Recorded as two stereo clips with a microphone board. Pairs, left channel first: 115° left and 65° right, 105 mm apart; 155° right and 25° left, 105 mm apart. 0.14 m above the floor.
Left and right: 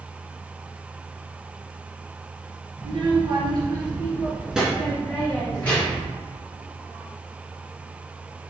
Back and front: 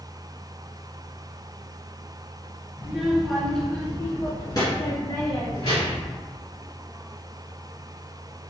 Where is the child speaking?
50° right, 1.6 m; by 6.2 s 175° left, 2 m.